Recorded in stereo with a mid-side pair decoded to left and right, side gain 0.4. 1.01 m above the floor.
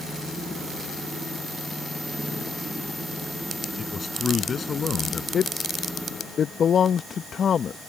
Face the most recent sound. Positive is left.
turn(degrees=55)